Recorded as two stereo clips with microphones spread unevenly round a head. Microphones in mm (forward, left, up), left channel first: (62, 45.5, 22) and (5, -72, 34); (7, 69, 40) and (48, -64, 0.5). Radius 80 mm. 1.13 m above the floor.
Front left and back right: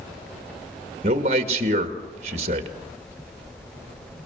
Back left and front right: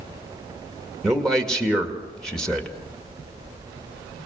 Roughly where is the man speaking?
Behind.